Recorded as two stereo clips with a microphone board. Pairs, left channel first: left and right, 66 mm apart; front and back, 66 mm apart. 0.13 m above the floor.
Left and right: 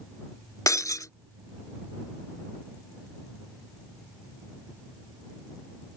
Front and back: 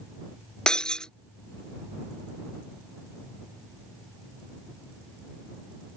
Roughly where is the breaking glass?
Left.